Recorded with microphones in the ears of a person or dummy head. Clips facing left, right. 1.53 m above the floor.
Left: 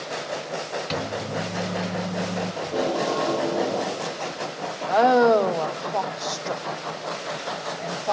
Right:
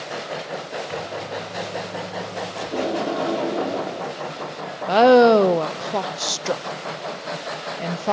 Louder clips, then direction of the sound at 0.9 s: Left 3 dB; 50° left (ahead or behind).